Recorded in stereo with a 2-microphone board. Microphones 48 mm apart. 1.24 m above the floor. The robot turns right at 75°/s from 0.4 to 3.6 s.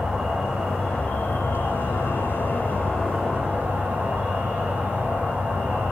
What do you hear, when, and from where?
0.0 s an insect: 25° right, 0.8 m; by 5.9 s 145° right, 0.8 m